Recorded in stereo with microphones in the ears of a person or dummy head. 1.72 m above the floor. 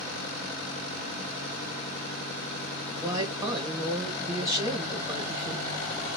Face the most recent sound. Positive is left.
turn(degrees=-20)  # may be behind; listen again after turning